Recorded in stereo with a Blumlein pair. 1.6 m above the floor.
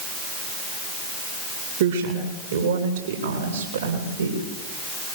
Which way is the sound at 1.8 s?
55° right.